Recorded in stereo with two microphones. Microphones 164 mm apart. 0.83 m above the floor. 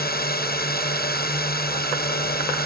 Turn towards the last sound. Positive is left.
turn(degrees=70)  # may be behind; listen again after turning